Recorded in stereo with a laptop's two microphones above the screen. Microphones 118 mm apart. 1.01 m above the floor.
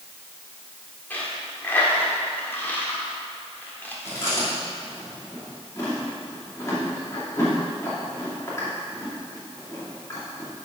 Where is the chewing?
25° left (ahead or behind), 2.5 m.